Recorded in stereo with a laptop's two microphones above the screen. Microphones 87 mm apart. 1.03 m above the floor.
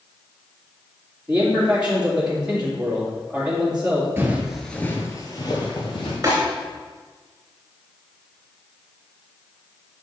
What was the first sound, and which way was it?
A man speaking, 15° right (ahead or behind).